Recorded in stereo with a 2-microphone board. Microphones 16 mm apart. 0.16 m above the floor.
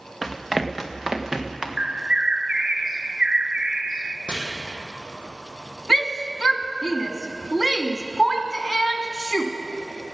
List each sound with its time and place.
0.2 s running footsteps: 5° right (ahead or behind), 1.8 m; by 1.7 s 35° right (ahead or behind), 2.5 m
1.8 s a bird: 60° right (ahead or behind), 0.6 m
4.3 s chopping: 80° right, 3.5 m
5.9 s a shout: centre (ahead or behind), 1.1 m